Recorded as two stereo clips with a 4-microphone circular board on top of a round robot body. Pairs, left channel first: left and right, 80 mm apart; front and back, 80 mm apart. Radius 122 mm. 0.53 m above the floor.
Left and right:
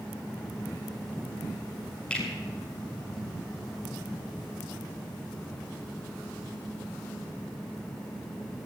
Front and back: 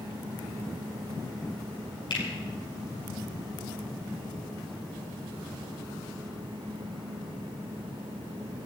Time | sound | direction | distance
2.1 | a finger snap | 15° left | 5.5 m